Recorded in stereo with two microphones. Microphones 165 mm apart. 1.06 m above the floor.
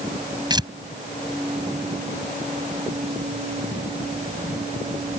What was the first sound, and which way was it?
Tearing paper, 25° right (ahead or behind).